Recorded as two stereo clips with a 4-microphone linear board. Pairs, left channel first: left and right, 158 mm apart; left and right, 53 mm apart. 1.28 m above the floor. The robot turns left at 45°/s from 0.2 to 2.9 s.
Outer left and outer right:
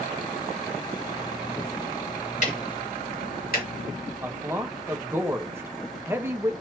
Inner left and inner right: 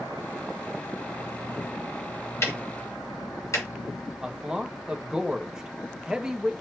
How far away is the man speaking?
About 1.3 m.